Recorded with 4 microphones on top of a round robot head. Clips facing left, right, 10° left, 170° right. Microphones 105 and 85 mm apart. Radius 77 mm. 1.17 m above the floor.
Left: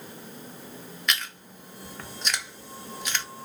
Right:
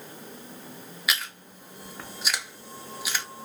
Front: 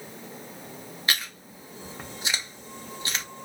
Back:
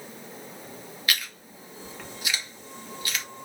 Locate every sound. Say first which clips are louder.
1.1 s chewing: even, front 1 dB; 15° right, 0.7 m